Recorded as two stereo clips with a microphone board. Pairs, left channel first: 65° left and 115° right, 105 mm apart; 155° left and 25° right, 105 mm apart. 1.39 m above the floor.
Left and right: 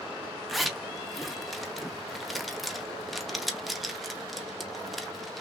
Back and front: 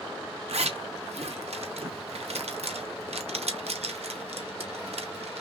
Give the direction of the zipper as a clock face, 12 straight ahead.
1 o'clock.